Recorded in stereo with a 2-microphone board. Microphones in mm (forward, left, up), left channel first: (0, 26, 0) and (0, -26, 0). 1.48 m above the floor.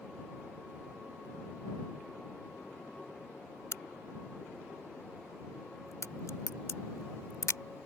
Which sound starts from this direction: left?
A crack, at 3.7 s.